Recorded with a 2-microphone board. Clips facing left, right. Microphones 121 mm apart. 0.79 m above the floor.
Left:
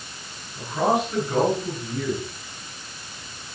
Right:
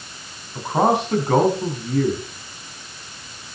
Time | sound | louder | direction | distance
0.6 | a man speaking | right 4 dB | 75° right (ahead or behind) | 6.5 m